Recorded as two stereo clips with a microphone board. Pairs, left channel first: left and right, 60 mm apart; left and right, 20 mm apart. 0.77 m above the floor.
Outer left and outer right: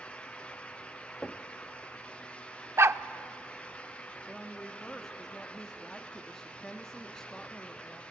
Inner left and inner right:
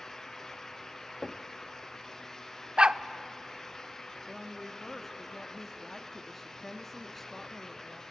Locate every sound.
1.2 s knocking: 10° left (ahead or behind), 0.8 m
2.8 s a dog barking: 50° right (ahead or behind), 0.6 m
4.3 s a woman speaking: 10° left (ahead or behind), 1.2 m